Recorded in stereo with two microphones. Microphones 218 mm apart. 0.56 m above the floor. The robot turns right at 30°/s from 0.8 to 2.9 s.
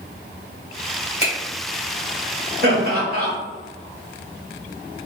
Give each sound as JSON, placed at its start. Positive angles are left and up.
{"t": 1.2, "sound": "a finger snap", "side_deg": 30, "distance_m": 1.8}
{"t": 2.6, "sound": "laughter", "side_deg": -50, "distance_m": 1.6}